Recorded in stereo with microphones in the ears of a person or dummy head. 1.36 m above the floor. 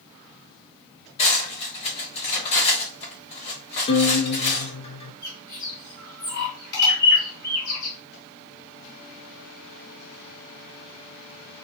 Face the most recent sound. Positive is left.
turn(degrees=20)  # may be behind; listen again after turning